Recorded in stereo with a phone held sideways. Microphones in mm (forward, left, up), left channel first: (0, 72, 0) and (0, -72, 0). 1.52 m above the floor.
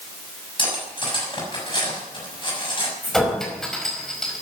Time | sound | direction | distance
0.6 | cutlery clinking | 35° left (ahead or behind) | 6 m
3.0 | a clink | 5° left (ahead or behind) | 5 m